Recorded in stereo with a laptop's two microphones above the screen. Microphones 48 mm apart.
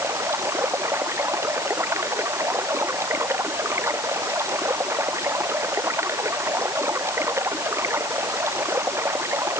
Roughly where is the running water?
Right.